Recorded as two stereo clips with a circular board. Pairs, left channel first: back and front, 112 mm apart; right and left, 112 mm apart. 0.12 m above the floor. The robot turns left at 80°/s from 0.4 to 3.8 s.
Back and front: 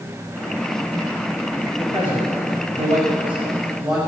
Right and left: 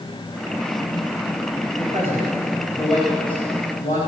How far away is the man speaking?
About 6 m.